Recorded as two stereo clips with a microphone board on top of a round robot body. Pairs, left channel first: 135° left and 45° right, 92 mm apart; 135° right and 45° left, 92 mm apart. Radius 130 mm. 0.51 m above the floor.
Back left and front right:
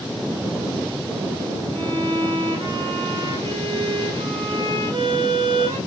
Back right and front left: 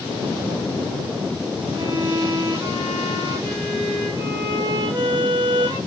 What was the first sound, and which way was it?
A violin, 10° right.